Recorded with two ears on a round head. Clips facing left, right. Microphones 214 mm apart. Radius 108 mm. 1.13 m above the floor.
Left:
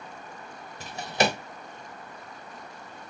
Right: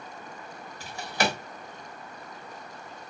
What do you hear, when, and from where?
0.8 s a drawer: 20° left (ahead or behind), 0.6 m